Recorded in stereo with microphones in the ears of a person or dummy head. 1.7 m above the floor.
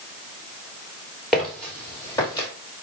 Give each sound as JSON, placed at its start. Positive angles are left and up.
{"t": 1.3, "sound": "footsteps", "side_deg": 5, "distance_m": 2.0}